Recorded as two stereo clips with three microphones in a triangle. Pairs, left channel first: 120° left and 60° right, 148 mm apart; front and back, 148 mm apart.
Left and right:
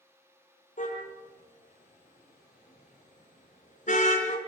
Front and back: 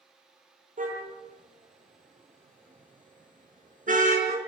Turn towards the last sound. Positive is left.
turn(degrees=150)